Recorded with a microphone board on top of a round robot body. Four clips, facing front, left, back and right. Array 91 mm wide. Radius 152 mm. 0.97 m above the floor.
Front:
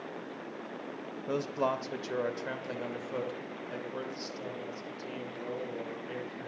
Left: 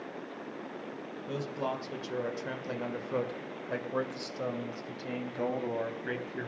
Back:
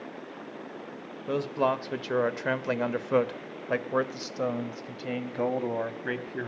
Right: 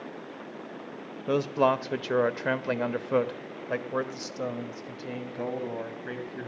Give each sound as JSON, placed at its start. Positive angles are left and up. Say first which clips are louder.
{"t": 1.3, "sound": "a man speaking", "louder": "right 11 dB, back 5 dB", "azimuth_deg": -100, "distance_m": 1.9}